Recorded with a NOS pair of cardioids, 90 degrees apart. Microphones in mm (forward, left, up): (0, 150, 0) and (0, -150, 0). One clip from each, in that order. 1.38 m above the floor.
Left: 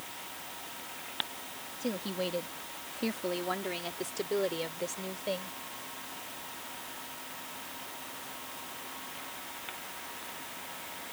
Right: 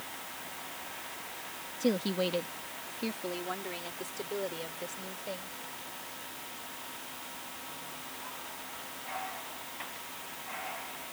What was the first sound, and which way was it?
A woman speaking, 40° right.